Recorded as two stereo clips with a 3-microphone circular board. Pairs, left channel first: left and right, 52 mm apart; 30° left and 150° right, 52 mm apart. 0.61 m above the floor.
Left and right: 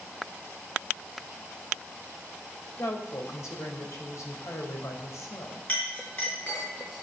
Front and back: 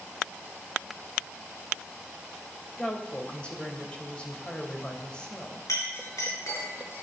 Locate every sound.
2.8 s a woman speaking: 100° left, 3 m
5.7 s a clink: 25° left, 5 m